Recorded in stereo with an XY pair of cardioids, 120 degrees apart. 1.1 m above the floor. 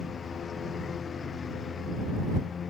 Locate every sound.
0.0 s a lawn mower: 35° left